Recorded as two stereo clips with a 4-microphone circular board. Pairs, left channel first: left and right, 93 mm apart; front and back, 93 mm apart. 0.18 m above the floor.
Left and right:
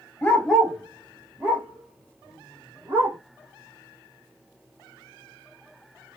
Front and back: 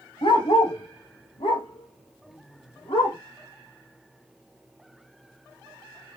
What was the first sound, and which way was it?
A dog barking, 15° left.